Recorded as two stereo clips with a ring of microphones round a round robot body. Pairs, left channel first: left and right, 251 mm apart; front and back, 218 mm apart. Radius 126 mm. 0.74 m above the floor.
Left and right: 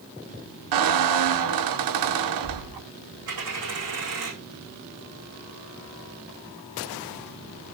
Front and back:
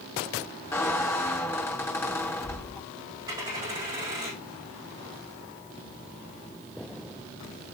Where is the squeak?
80° right, 0.9 m.